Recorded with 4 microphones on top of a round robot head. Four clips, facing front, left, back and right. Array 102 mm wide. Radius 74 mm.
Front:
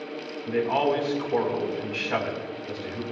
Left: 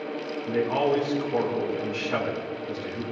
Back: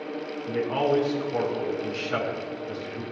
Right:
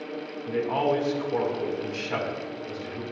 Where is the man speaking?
25° right, 4 m.